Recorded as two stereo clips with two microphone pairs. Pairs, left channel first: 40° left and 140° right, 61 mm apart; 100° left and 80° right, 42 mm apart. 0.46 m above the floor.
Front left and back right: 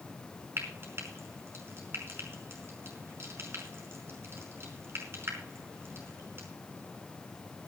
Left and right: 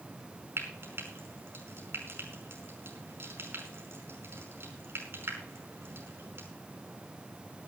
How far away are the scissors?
I don't hear scissors.